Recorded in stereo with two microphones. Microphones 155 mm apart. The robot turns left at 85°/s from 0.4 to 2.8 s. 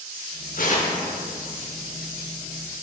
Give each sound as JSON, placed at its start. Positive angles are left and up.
{"t": 0.6, "sound": "tearing paper", "azimuth_deg": 75, "distance_m": 0.8}